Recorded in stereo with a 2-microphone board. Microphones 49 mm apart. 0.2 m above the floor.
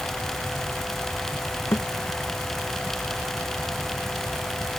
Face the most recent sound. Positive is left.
turn(degrees=70)  # may be behind; listen again after turning